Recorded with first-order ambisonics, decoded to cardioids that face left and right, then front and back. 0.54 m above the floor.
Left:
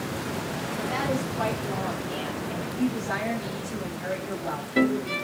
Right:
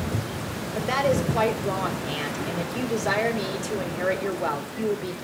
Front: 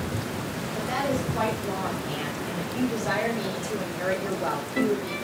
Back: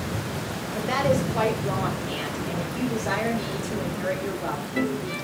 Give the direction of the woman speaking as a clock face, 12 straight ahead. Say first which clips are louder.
Right 6 dB, back 4 dB; 4 o'clock.